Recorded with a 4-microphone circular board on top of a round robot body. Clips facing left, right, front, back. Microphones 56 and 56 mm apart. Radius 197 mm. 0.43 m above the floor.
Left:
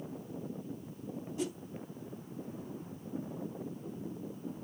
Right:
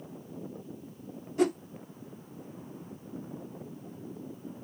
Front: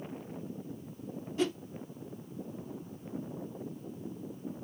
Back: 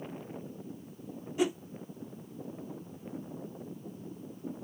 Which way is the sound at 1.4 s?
105° right.